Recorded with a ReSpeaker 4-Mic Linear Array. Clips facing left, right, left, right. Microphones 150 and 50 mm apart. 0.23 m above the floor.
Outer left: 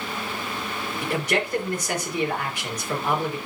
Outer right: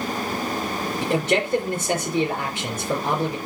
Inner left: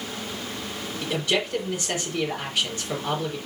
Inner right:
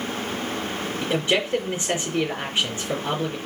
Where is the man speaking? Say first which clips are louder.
Outer right 3 dB, inner right 2 dB; 25° right (ahead or behind), 4 m.